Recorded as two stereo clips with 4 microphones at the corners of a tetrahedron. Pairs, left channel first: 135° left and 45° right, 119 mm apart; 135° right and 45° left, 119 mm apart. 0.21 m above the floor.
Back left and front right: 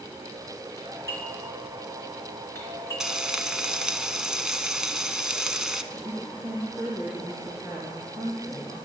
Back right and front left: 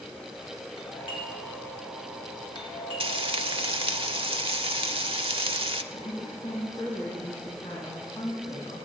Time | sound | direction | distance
0.8 | a doorbell | 165° right | 3 m
3.0 | frying | 35° left | 0.6 m
5.9 | a woman speaking | 110° right | 2 m